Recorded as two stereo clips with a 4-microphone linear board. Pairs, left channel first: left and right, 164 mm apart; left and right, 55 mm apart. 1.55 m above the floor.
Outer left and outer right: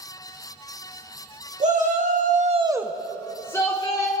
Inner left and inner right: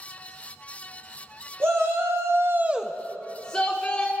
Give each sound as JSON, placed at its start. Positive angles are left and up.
{"t": 1.6, "sound": "a shout", "side_deg": -45, "distance_m": 1.3}